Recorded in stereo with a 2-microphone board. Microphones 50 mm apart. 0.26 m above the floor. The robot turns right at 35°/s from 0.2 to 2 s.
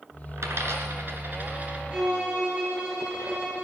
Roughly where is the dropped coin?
Right.